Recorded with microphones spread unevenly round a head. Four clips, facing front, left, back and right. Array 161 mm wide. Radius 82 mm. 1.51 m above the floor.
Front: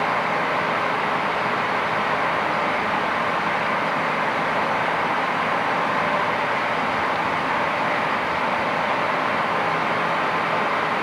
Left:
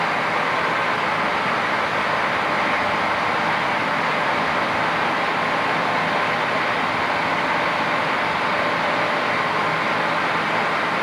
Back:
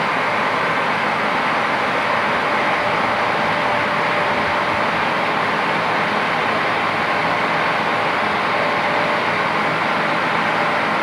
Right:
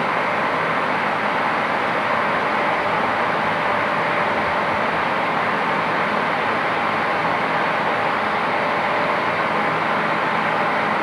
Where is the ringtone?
No ringtone in this recording.